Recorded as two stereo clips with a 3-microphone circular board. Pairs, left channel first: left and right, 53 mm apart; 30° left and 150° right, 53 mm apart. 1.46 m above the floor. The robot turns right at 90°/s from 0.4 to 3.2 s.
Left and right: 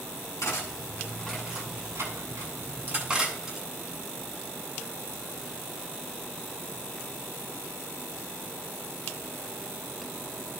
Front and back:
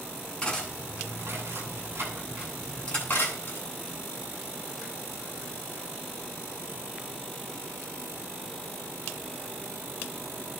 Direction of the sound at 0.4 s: 100° left.